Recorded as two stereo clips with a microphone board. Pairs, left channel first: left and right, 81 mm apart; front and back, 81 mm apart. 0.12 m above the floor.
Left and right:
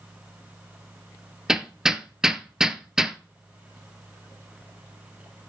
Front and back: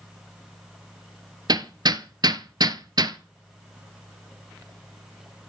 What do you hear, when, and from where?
1.5 s hammering: 170° right, 0.9 m